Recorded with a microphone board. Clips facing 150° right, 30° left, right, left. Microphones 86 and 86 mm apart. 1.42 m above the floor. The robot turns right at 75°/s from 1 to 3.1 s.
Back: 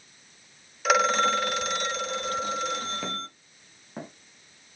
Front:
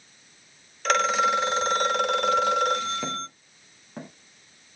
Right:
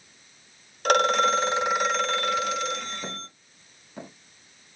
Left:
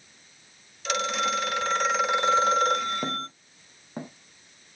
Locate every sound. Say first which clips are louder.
0.8 s a phone ringing: even, right 7 dB; 65° right, 0.8 m; by 3.3 s 90° left, 0.8 m
3.0 s footsteps: front 2 dB, left 6 dB; 120° left, 3 m; by 4.1 s 130° left, 3.5 m